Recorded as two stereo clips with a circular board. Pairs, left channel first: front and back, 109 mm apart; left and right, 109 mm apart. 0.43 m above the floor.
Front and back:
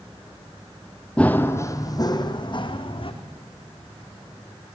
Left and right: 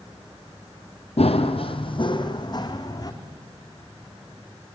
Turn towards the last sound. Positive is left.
turn(degrees=35)